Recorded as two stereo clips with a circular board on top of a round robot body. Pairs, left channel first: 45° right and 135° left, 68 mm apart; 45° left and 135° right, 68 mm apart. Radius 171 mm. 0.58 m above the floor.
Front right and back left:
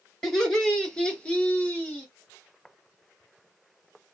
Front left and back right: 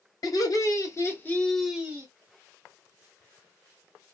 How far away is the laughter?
About 2 m.